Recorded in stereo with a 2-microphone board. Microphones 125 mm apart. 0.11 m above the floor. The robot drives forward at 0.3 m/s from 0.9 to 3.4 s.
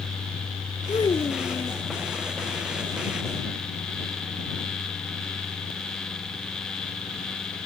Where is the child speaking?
40° left (ahead or behind); by 1.8 s 35° left (ahead or behind).